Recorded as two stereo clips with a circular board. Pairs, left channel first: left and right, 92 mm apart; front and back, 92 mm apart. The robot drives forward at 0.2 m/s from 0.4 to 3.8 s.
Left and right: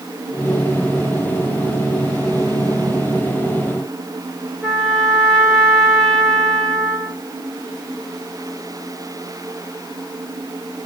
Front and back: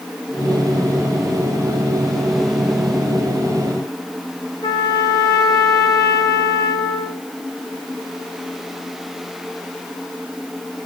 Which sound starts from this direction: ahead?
A trumpet, at 4.6 s.